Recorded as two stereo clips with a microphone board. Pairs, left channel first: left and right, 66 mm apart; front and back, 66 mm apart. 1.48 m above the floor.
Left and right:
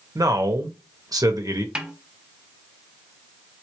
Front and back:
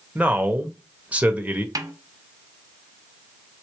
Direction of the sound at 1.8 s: 165° right.